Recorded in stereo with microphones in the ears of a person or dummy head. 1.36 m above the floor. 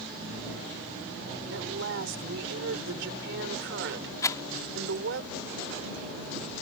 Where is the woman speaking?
70° right (ahead or behind).